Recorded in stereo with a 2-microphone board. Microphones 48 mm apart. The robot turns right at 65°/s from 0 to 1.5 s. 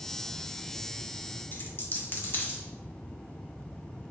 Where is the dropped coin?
45° left (ahead or behind), 0.5 m.